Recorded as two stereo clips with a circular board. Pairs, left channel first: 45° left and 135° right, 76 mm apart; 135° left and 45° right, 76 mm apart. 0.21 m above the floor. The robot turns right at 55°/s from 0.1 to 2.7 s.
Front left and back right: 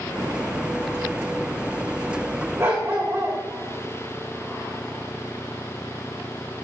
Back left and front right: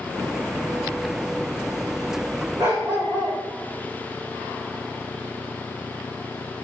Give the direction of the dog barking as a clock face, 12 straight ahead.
3 o'clock.